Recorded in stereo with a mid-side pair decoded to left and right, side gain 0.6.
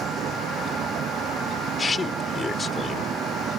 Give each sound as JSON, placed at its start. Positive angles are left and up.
{"t": 0.0, "sound": "a vehicle", "azimuth_deg": -45}
{"t": 1.8, "sound": "a man speaking", "azimuth_deg": 25}